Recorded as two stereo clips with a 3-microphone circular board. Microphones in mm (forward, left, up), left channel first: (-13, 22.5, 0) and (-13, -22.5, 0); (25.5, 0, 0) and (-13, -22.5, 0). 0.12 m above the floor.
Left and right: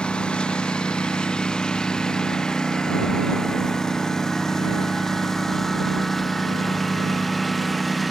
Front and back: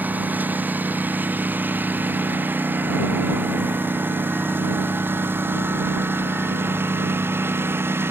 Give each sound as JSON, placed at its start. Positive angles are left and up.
{"t": 0.0, "sound": "a lawn mower", "azimuth_deg": 160}